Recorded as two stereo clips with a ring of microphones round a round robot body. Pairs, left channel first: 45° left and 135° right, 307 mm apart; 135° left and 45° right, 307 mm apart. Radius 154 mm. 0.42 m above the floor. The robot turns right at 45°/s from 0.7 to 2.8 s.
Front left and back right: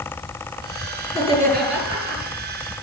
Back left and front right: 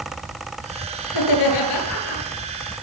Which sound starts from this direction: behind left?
Laughter, at 1.1 s.